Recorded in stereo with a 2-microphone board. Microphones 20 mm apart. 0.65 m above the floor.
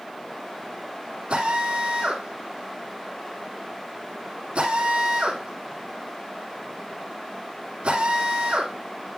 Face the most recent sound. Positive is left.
turn(degrees=-90)